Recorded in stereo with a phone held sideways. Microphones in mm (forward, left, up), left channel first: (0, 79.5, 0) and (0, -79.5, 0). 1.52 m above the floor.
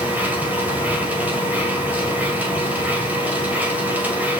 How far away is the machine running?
About 2.5 m.